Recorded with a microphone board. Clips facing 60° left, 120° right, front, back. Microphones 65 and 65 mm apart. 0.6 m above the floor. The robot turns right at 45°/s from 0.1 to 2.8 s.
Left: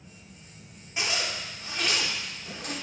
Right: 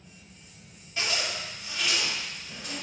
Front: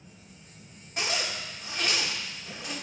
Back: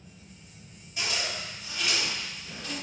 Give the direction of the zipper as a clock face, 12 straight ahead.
12 o'clock.